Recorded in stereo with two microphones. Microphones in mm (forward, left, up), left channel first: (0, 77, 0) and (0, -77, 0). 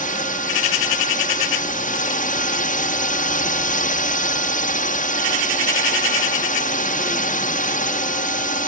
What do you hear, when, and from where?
0.0 s a drone: 60° left (ahead or behind)